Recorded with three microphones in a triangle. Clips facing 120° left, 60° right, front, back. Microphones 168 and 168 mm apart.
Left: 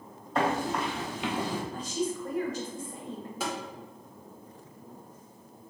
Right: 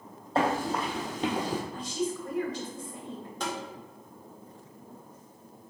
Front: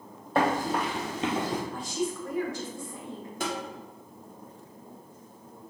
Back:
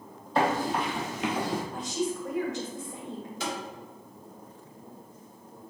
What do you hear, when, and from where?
0.3 s running footsteps: 15° right, 1.7 m; by 1.6 s 65° right, 1.1 m
1.7 s a woman speaking: 120° left, 1.3 m
3.4 s tapping: 40° left, 0.9 m